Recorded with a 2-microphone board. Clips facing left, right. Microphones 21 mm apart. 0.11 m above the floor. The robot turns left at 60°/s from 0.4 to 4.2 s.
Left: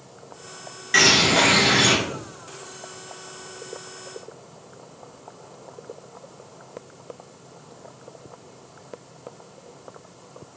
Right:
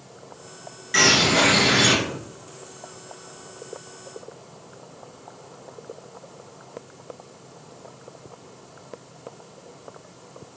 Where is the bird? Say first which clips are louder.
Left 1 dB; 25° left (ahead or behind), 0.7 m; by 2.0 s centre (ahead or behind), 0.7 m.